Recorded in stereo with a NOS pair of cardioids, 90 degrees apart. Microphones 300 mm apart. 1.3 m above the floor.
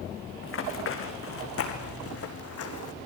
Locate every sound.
0.4 s running footsteps: 45° left, 5 m; by 2.9 s 60° left, 3.5 m